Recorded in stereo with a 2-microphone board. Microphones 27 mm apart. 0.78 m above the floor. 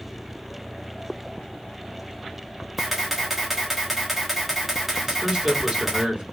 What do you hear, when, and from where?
2.8 s a camera shutter: 5° right (ahead or behind), 1.3 m
5.0 s a man speaking: 30° right (ahead or behind), 1.9 m